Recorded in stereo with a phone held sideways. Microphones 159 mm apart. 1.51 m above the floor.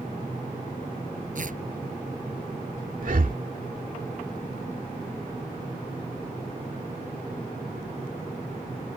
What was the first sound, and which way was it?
Tearing paper, 60° right (ahead or behind).